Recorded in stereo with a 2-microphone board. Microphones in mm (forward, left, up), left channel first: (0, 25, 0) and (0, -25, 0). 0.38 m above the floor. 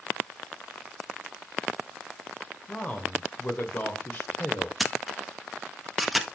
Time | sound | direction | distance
2.7 | a man speaking | 30° left (ahead or behind) | 1.7 m
4.8 | a camera shutter | 5° right (ahead or behind) | 0.8 m